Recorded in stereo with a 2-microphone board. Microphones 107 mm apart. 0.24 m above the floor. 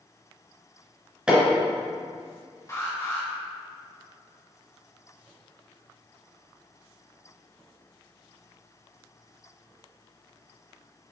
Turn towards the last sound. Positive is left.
turn(degrees=30)  # may be behind; listen again after turning